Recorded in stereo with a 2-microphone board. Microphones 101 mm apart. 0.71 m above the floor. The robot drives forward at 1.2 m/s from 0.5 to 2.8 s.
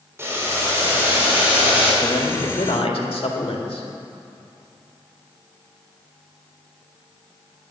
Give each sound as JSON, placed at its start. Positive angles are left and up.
{"t": 0.2, "sound": "boiling", "side_deg": -25, "distance_m": 3.0}
{"t": 2.0, "sound": "a man speaking", "side_deg": 65, "distance_m": 2.0}